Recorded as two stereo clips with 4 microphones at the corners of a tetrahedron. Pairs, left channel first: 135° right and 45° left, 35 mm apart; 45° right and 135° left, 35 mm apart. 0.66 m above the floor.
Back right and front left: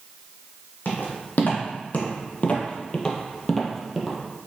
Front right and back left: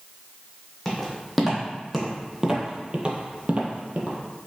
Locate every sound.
0.8 s footsteps: 130° right, 1.6 m; by 4.2 s 120° left, 1.0 m